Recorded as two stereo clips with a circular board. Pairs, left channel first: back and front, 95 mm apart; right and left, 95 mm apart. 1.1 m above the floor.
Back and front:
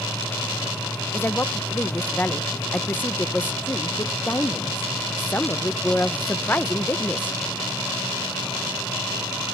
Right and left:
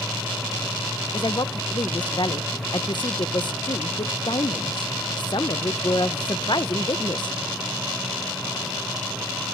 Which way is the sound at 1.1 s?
115° right.